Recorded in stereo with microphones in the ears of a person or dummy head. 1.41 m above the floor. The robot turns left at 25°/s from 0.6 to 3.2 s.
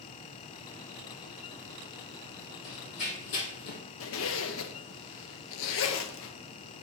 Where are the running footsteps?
45° left (ahead or behind), 2.5 m; by 3.8 s 50° left (ahead or behind), 2 m.